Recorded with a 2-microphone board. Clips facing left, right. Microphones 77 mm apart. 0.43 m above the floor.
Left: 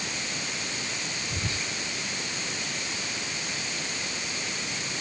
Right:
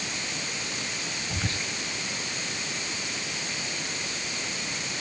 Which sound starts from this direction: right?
Whispering, at 1.3 s.